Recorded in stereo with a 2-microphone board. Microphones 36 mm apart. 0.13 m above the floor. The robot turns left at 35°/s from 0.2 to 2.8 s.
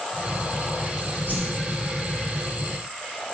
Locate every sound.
1.3 s a whoosh: 65° right (ahead or behind), 1.6 m